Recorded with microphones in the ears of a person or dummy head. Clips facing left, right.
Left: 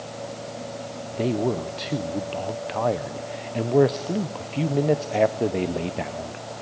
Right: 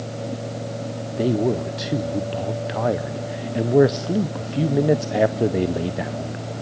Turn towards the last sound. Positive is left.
turn(degrees=-10)  # may be behind; listen again after turning